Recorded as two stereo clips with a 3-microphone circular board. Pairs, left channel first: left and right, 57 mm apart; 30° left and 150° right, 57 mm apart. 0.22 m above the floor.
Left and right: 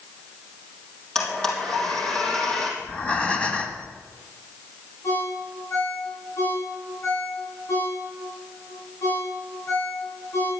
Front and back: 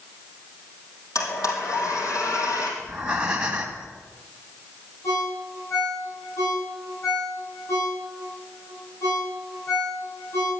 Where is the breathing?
145° left, 1.9 m.